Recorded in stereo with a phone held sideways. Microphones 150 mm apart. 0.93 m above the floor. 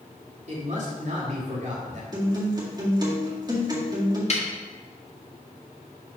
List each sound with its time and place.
0.5 s a man speaking: 50° right (ahead or behind), 2 m
2.1 s a guitar: 25° right (ahead or behind), 1.9 m
4.3 s a snare drum: 45° left (ahead or behind), 1.4 m